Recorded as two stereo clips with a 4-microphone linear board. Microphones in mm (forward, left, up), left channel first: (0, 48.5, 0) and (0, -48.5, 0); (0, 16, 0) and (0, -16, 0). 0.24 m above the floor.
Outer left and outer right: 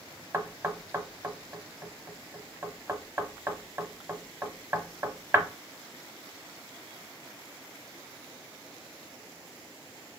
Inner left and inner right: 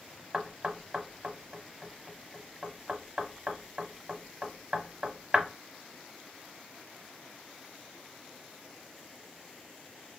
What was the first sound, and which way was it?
Knocking, 30° right (ahead or behind).